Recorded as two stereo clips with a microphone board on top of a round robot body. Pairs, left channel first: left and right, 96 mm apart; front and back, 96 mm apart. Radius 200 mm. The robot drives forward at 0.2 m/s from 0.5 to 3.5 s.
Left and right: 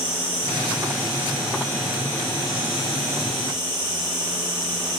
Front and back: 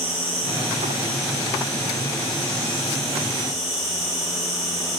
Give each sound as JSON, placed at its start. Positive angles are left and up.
{"t": 0.0, "sound": "an insect", "azimuth_deg": 180, "distance_m": 1.0}